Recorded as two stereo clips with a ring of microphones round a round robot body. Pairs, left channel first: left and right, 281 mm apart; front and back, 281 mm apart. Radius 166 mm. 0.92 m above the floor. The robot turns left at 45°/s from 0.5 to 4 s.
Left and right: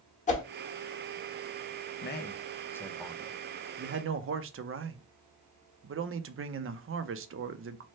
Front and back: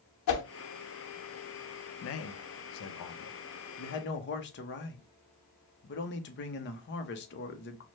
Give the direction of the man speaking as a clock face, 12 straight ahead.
11 o'clock.